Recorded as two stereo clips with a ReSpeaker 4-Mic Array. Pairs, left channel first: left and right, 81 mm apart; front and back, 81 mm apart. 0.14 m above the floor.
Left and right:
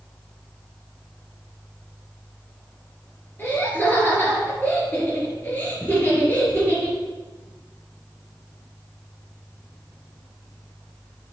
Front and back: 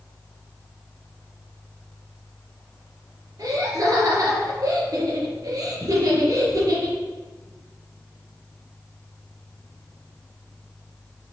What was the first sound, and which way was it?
Laughter, 155° left.